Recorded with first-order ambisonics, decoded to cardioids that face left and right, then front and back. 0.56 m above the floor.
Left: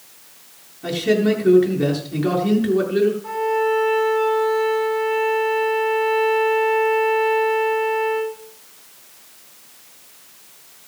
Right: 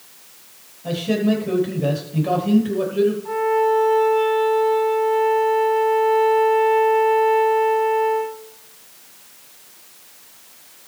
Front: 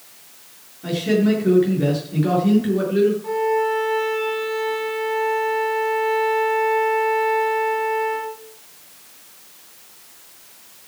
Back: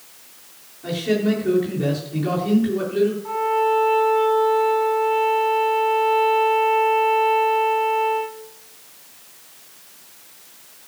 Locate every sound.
0.8 s a man speaking: 75° left, 8 m
3.2 s a violin: 40° left, 6.5 m